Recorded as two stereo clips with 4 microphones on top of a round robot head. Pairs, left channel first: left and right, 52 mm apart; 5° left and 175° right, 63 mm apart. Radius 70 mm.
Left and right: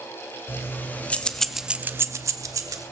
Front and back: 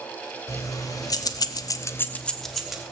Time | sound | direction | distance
0.5 | keys jangling | 40° left | 1.9 m